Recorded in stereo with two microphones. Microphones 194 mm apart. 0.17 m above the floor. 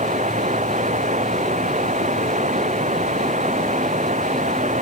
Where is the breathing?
I don't hear breathing.